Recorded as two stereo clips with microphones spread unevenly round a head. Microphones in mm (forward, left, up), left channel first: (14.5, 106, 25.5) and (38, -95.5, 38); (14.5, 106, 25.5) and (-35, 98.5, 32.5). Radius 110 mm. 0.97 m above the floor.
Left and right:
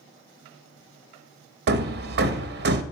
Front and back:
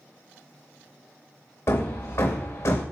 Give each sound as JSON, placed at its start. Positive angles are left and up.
{"t": 1.7, "sound": "hammering", "azimuth_deg": -45, "distance_m": 0.7}